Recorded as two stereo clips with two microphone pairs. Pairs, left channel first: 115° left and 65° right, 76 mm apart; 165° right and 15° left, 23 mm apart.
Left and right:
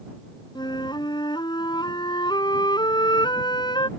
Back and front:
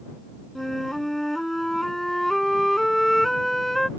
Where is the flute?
115° left.